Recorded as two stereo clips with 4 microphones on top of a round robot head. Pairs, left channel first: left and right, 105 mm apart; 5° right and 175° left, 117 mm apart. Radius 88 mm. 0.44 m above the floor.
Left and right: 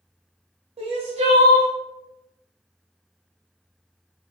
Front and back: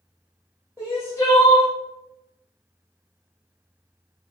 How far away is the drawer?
No drawer in this recording.